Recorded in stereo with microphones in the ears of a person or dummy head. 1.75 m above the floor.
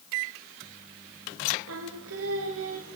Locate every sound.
1.7 s singing: 75° right (ahead or behind), 1.0 m